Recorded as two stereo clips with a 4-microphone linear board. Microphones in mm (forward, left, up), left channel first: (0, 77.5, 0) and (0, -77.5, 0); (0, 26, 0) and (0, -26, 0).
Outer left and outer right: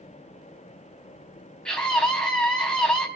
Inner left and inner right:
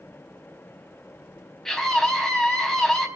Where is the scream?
5° left (ahead or behind), 4.5 m.